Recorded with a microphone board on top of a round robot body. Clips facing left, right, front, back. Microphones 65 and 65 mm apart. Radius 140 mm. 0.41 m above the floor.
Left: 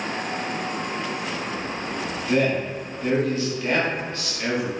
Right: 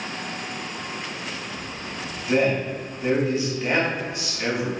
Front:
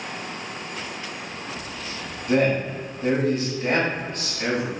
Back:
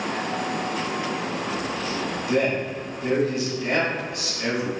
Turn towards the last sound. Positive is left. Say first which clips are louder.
# right 1 dB, front 3 dB
turn(degrees=-20)